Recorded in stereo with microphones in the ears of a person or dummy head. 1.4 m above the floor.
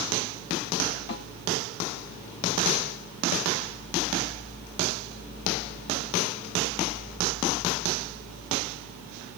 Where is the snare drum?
65° left (ahead or behind), 3.5 m.